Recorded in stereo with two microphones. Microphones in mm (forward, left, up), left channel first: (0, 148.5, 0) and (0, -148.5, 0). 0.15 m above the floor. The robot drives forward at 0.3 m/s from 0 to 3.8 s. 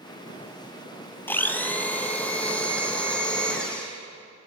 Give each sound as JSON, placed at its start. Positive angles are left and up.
{"t": 1.3, "sound": "a blender", "side_deg": 5, "distance_m": 0.5}